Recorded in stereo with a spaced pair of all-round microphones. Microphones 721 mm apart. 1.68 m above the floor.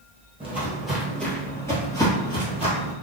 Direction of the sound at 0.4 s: Centre (ahead or behind).